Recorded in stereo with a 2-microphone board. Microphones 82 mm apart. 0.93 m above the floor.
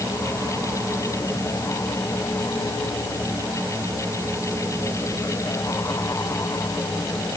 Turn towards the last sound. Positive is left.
No sound to turn to.